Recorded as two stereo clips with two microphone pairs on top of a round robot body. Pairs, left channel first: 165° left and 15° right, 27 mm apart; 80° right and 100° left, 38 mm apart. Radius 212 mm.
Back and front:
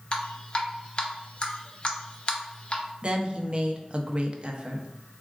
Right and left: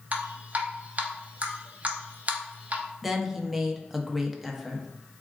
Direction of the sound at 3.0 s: 20° left.